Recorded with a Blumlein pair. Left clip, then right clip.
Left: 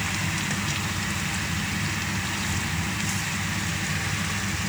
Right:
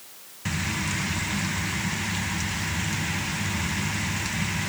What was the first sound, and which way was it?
Only background noise.